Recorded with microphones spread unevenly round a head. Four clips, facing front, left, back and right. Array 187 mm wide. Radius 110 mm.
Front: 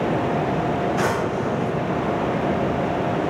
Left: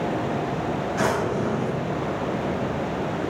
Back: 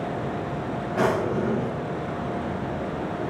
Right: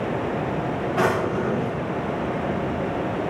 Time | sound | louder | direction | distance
1.0 | a drawer | right 2 dB, front 1 dB | 150° right | 1.5 m